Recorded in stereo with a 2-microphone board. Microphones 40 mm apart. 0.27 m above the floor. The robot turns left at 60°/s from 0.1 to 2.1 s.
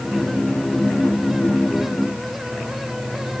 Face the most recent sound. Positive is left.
No sound to turn to.